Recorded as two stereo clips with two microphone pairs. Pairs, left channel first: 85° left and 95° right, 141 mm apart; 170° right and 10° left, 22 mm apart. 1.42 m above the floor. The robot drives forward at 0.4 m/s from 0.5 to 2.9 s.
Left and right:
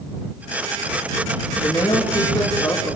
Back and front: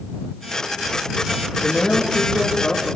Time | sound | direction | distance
1.6 | a man speaking | 145° left | 2.5 m